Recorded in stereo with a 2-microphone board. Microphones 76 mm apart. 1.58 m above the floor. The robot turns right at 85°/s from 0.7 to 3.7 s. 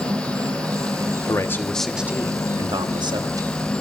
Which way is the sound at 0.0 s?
80° right.